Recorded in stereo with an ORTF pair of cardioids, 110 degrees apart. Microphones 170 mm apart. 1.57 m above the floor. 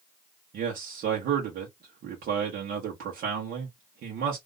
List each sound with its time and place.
0.5 s a man speaking: 65° right, 1.4 m